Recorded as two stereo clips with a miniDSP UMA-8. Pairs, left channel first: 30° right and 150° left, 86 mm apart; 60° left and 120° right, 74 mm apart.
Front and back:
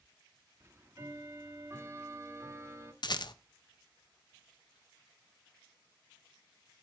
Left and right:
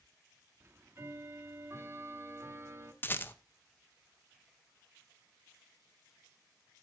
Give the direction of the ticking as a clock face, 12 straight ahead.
5 o'clock.